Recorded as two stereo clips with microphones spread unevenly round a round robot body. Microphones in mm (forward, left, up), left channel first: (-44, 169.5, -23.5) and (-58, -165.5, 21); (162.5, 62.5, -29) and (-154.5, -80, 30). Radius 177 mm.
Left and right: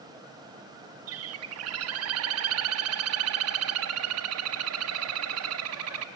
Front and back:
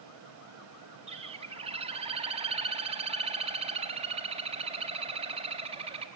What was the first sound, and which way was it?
A bird, 80° right.